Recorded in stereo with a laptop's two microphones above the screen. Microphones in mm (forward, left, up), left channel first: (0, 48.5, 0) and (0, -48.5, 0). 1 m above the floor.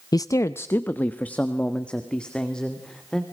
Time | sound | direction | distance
0.1 | a man speaking | 40° left (ahead or behind) | 0.5 m